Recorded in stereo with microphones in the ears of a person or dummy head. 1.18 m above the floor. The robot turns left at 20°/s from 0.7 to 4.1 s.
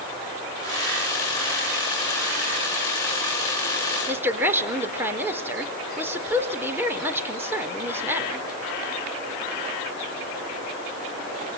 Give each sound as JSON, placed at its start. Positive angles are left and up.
{"t": 4.1, "sound": "a woman speaking", "side_deg": -15, "distance_m": 4.5}